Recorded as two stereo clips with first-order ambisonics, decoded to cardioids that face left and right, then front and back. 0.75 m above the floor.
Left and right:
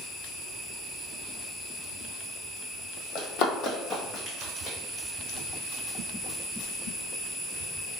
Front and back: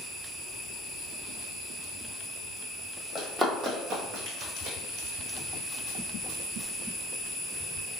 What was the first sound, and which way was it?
Running footsteps, 80° left.